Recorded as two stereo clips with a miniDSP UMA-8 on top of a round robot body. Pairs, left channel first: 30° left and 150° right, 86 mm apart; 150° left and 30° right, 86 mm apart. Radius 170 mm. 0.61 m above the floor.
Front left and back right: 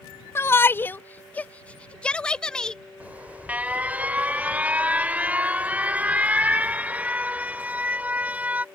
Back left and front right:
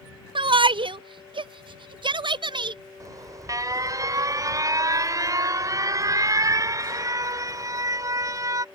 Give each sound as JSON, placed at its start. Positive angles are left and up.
{"t": 0.3, "sound": "a shout", "azimuth_deg": -30}
{"t": 3.0, "sound": "an alarm", "azimuth_deg": -75}